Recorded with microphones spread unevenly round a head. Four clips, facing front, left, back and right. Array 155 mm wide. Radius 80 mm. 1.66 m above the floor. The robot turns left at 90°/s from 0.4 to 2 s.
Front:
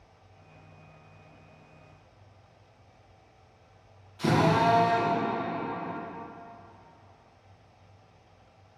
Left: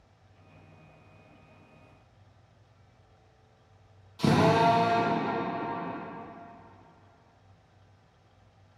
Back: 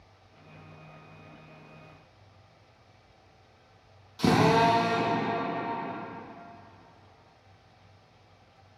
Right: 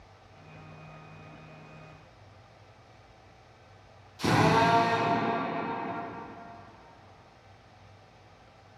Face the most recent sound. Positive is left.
turn(degrees=140)